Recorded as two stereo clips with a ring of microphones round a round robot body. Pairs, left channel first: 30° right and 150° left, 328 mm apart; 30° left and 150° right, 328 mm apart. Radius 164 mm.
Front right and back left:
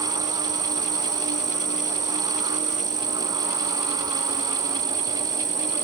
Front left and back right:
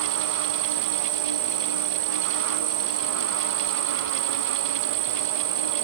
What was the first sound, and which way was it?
An insect, 140° right.